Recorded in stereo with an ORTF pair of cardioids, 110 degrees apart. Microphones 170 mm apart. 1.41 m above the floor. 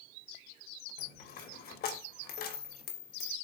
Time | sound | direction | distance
1.0 | a dropped coin | 70° left | 3 m